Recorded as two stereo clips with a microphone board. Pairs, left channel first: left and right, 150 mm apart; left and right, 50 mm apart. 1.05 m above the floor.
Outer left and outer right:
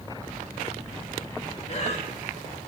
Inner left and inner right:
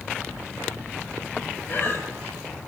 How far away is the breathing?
About 6 m.